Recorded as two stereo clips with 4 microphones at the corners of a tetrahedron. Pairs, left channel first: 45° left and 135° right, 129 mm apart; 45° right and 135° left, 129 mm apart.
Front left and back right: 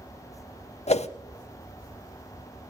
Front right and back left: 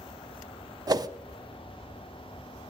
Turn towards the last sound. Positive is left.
turn(degrees=75)